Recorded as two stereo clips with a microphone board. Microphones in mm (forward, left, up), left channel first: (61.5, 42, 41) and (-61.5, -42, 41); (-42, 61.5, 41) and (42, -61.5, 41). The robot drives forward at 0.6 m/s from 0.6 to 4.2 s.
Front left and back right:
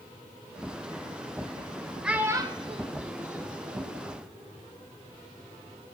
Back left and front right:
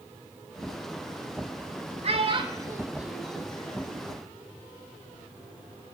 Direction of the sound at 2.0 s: 65° right.